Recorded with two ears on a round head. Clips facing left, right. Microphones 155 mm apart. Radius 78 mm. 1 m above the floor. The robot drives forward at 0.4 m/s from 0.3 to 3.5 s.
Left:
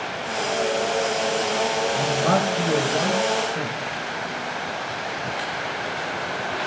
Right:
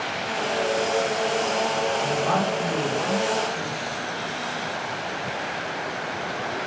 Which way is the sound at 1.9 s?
55° left (ahead or behind).